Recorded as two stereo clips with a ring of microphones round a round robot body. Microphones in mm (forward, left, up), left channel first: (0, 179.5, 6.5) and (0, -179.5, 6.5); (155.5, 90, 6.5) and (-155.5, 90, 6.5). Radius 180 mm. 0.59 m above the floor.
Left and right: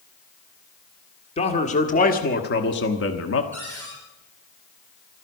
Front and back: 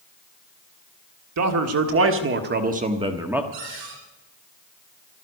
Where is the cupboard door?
175° left, 8.5 m.